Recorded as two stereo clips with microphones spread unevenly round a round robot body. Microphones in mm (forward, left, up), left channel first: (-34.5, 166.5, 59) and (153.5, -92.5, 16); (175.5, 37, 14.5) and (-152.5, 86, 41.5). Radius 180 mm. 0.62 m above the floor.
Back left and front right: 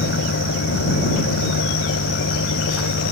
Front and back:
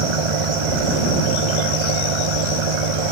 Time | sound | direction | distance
0.0 | an engine running | 175° right | ?